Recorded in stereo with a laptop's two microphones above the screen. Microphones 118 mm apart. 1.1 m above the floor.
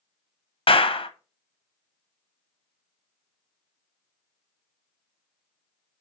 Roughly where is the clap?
Left.